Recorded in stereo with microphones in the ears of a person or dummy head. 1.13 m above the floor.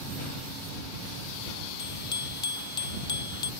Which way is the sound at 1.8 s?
25° left (ahead or behind).